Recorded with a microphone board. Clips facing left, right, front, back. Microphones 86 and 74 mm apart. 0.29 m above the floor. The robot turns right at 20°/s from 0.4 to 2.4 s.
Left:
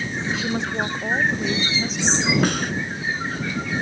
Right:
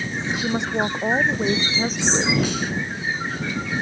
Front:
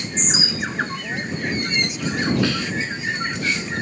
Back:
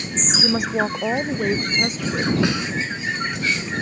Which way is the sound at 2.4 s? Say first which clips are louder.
Left 3 dB, even; 110° left.